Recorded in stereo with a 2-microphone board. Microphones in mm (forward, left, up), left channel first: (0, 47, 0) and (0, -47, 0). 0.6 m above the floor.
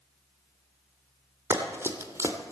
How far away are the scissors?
I don't hear scissors.